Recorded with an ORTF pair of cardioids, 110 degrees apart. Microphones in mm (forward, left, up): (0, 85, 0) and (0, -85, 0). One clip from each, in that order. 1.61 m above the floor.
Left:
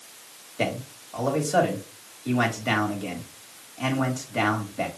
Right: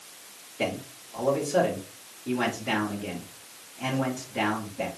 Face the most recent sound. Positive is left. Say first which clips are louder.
# left 2 dB
turn(degrees=65)